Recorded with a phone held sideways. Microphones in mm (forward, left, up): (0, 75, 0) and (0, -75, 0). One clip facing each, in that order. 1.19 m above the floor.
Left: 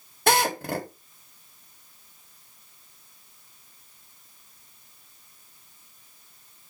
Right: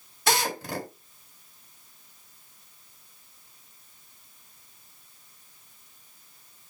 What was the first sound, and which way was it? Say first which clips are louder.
A drill: left 4 dB; 55° left (ahead or behind).